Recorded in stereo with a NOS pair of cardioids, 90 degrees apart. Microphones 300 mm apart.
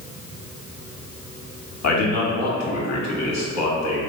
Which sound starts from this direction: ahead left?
A man speaking, at 1.8 s.